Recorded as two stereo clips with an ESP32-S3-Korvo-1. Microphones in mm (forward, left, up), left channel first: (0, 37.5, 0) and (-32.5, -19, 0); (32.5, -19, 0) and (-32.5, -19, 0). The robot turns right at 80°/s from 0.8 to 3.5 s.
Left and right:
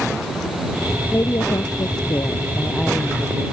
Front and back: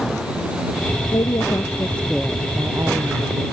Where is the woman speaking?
5° left; by 3.4 s 170° right.